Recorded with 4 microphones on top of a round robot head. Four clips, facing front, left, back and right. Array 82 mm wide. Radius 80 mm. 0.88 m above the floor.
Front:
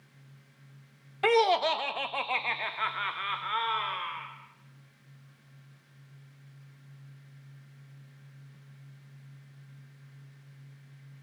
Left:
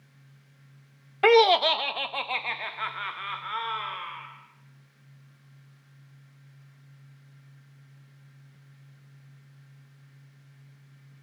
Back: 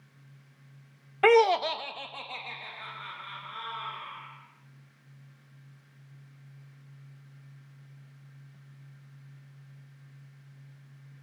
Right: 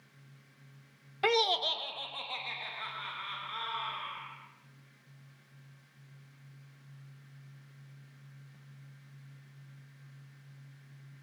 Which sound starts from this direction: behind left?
Laughter, at 1.2 s.